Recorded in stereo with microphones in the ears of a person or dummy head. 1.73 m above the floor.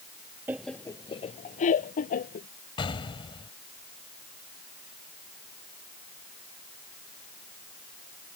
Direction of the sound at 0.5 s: 15° right (ahead or behind).